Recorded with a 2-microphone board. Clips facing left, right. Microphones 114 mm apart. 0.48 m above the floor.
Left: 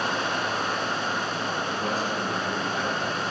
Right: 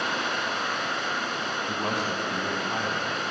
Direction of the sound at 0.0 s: 35° left (ahead or behind).